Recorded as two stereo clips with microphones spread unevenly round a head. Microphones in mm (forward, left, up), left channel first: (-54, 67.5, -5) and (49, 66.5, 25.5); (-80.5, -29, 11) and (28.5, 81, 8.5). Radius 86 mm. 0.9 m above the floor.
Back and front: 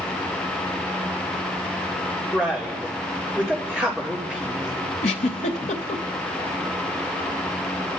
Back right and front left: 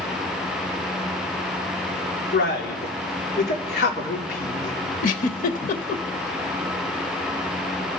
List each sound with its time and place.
2.3 s a man speaking: 100° right, 2.5 m
5.0 s a giggle: 150° right, 0.8 m